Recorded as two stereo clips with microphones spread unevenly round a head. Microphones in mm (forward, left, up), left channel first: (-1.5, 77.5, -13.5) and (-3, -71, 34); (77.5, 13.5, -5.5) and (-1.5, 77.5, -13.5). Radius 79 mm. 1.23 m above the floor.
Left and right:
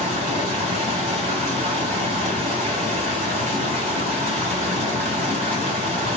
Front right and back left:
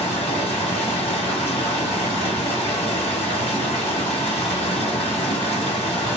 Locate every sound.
0.0 s running water: 55° right, 1.2 m